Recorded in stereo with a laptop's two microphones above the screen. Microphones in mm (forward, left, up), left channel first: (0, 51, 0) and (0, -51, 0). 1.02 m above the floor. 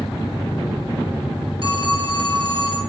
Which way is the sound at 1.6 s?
55° right (ahead or behind).